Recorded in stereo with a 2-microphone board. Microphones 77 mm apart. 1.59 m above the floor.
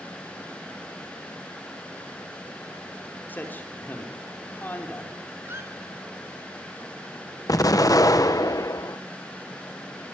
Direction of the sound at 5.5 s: 30° right (ahead or behind).